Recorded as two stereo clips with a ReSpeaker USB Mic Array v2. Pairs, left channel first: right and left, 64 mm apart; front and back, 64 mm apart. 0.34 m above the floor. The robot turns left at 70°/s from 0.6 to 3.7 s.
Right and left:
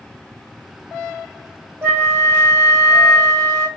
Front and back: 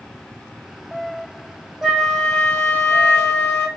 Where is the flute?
95° left, 1.2 m; by 3.7 s 35° right, 1.2 m.